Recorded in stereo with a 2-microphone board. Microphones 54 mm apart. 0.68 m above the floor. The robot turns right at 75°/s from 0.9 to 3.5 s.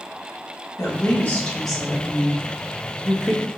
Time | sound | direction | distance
0.8 | a woman speaking | 115° left | 1.4 m